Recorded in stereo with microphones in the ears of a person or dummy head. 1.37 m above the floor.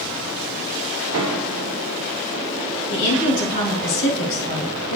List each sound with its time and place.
1.1 s a piano: 75° right (ahead or behind), 0.7 m
2.9 s a woman speaking: 65° left (ahead or behind), 2.5 m